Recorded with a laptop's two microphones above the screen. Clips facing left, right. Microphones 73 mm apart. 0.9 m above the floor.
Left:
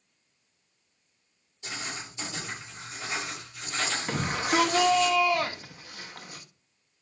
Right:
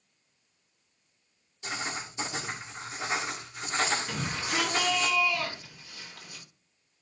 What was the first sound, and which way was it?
Writing, 30° right (ahead or behind).